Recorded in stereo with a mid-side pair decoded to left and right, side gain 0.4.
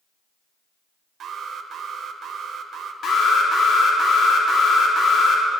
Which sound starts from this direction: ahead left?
An alarm, at 3.0 s.